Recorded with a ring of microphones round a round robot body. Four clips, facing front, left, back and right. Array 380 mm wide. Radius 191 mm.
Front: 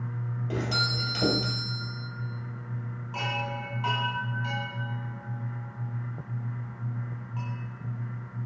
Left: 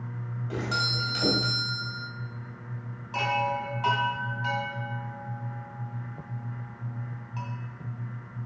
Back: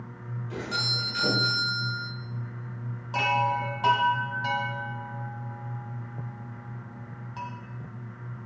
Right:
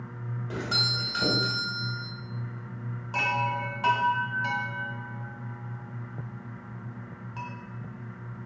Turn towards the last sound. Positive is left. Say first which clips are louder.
# left 1 dB, back 8 dB
turn(degrees=-160)